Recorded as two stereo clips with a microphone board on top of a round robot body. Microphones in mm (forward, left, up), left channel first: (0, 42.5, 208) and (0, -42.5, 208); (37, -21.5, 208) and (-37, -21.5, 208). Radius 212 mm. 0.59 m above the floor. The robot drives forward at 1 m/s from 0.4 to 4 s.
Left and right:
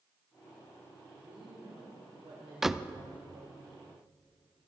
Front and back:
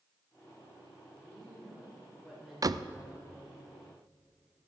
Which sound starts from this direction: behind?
A door slam, at 2.6 s.